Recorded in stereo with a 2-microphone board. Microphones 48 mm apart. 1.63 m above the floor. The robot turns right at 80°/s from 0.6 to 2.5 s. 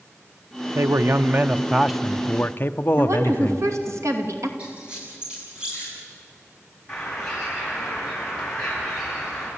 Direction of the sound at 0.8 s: 95° right.